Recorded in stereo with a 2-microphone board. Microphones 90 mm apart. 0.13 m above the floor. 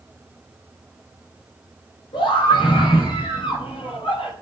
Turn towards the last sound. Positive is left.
turn(degrees=80)